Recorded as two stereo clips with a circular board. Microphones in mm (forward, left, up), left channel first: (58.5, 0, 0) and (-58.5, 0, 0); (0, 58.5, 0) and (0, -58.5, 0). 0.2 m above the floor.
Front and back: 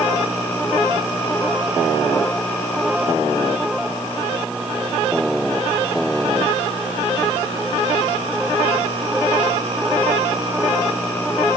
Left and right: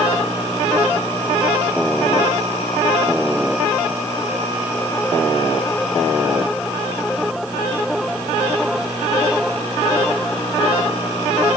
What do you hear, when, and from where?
Only background noise.